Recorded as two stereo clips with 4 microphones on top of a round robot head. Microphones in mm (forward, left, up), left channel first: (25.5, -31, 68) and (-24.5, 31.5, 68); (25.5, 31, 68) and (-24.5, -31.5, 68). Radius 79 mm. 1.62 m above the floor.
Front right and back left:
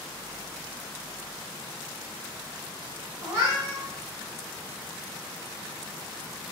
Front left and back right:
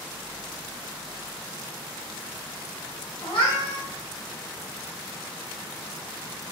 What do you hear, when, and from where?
3.2 s a cat meowing: 65° left, 2.0 m